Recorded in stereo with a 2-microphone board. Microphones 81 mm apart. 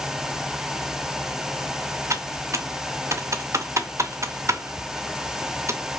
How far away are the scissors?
I don't hear scissors.